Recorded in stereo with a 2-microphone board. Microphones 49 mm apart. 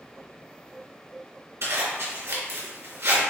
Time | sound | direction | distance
1.6 | a zipper | 75° right (ahead or behind) | 3 m